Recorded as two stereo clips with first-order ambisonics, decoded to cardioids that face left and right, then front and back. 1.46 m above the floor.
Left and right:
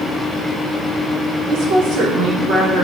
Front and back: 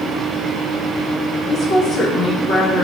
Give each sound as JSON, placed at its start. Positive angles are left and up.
{"t": 1.5, "sound": "a woman speaking", "azimuth_deg": -65, "distance_m": 1.1}